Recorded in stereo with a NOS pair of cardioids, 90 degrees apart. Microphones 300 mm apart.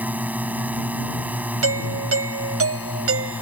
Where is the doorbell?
50° right.